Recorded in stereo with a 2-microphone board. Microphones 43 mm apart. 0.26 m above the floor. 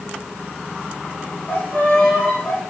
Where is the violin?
50° left (ahead or behind), 3.5 m.